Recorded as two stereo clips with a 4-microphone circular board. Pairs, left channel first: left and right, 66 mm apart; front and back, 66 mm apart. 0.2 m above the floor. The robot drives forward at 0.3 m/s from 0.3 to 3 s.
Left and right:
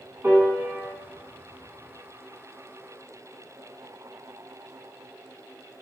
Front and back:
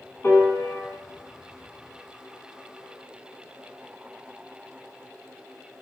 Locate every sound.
0.2 s a piano: 50° right, 0.9 m; by 0.9 s 60° right, 0.8 m